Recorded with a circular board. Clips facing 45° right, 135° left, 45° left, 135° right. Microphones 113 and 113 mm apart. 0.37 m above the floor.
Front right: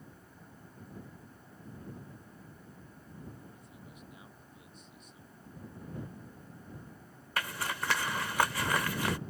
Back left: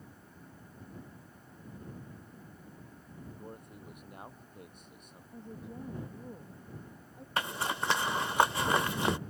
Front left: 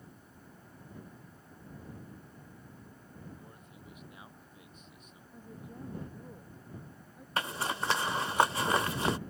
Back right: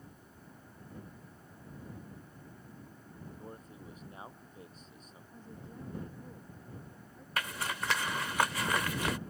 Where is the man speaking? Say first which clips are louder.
Back left 5 dB, back right 5 dB; 170° left.